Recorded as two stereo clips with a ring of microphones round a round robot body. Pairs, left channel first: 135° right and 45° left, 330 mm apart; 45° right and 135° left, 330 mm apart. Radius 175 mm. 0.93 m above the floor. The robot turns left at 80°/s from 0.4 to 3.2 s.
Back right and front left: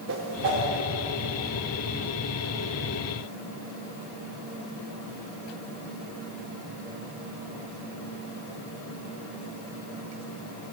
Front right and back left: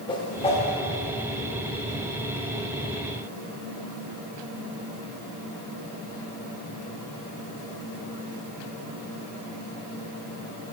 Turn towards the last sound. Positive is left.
turn(degrees=160)